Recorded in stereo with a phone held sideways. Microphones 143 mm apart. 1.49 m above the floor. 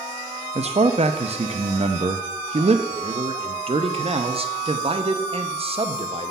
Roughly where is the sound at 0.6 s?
Right.